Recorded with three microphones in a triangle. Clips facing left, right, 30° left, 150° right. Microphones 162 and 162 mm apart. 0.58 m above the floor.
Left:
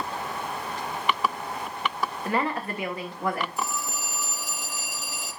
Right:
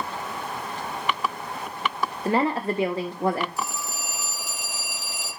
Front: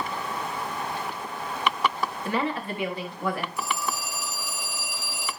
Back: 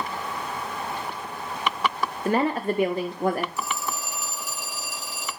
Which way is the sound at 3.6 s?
125° left.